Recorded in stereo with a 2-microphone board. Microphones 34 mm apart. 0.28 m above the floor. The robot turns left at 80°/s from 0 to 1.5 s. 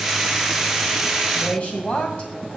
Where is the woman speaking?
30° left (ahead or behind), 1.8 m; by 2.3 s 35° left (ahead or behind), 1.8 m.